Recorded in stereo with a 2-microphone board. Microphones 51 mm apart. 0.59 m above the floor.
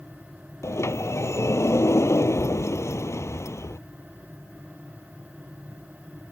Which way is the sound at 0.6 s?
60° left (ahead or behind).